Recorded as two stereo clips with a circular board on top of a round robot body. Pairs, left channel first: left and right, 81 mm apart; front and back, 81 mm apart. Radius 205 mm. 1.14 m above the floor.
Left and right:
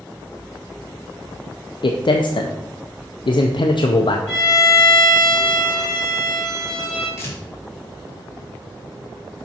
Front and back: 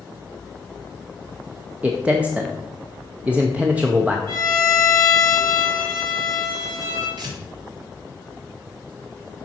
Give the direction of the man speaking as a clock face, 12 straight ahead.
9 o'clock.